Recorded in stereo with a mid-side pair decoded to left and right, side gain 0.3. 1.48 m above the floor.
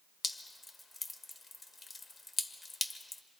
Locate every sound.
0.2 s dripping: 40° left, 1.4 m